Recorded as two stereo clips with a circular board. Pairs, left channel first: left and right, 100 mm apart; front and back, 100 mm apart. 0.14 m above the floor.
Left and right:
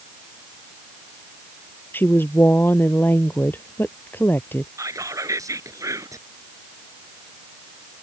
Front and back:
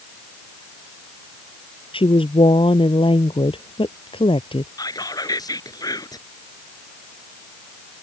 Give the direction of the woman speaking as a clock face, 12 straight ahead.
11 o'clock.